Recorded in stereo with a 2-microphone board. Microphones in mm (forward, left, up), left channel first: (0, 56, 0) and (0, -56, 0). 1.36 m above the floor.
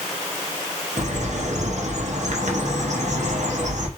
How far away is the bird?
About 1.1 m.